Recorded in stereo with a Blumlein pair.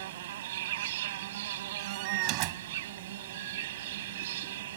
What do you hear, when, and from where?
0.0 s an insect: 55° right
1.8 s a door slam: 40° right